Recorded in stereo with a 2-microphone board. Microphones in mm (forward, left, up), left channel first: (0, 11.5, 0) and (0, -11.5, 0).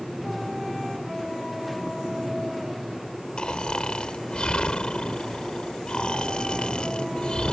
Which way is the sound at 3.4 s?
45° left (ahead or behind).